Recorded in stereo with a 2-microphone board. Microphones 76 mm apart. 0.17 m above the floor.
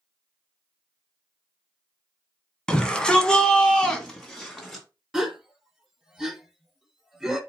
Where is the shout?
10° left (ahead or behind), 1.2 m; by 4.8 s 5° left (ahead or behind), 1.4 m.